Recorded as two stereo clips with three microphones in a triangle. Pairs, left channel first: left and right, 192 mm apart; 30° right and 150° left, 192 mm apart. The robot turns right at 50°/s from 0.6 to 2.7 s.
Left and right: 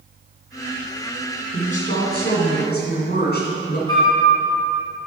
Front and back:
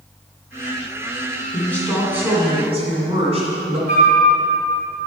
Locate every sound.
1.5 s a woman speaking: 40° left, 2.5 m; by 3.8 s 100° left, 2.5 m
3.9 s a flute: 155° left, 2.5 m